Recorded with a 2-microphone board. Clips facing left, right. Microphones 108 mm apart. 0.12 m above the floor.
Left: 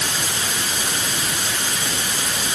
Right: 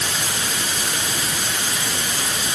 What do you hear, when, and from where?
Only background noise.